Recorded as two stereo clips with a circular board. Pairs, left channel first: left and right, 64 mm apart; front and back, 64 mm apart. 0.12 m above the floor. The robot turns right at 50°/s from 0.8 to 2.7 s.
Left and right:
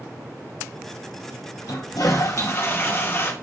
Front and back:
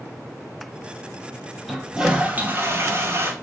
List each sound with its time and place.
1.7 s a toilet flushing: 90° left, 2 m; by 3.3 s 140° left, 2 m